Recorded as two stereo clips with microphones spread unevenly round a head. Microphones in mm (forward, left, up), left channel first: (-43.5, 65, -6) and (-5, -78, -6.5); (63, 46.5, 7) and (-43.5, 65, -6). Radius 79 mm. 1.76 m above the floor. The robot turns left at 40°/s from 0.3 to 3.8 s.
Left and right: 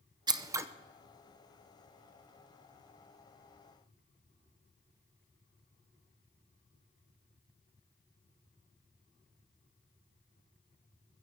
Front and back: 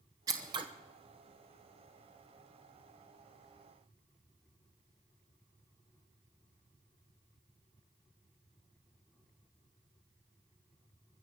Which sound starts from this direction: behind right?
Scissors, at 0.3 s.